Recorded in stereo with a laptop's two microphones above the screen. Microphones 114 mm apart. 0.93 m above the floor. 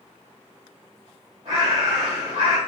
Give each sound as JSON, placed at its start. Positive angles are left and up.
{"t": 1.4, "sound": "a bird", "side_deg": -60, "distance_m": 1.7}